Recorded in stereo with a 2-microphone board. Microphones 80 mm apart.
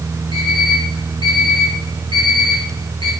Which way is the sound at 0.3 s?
70° left (ahead or behind).